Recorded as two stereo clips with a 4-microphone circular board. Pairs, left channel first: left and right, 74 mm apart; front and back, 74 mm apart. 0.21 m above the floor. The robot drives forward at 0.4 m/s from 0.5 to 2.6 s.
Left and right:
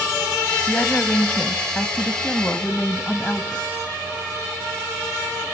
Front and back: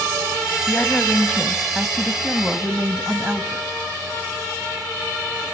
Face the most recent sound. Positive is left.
turn(degrees=120)